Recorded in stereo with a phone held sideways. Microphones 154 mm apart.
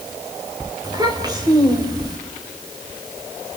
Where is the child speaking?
25° right (ahead or behind), 2.5 m.